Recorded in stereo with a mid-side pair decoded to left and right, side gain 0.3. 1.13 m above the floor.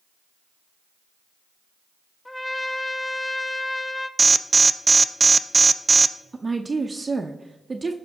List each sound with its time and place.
2.2 s a trumpet: 25° left, 1.2 m
4.2 s an alarm: 40° right, 0.5 m
6.3 s a woman speaking: 35° right, 0.7 m